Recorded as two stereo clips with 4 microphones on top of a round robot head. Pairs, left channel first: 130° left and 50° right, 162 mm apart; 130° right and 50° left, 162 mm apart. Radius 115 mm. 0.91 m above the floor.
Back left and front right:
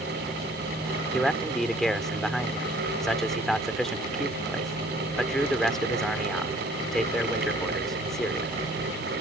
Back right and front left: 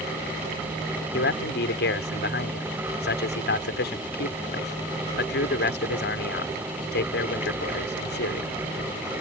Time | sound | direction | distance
1.1 | a man speaking | 145° right | ?